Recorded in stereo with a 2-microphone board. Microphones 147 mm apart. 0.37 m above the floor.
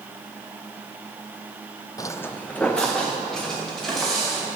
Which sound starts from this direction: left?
Footsteps, at 2.0 s.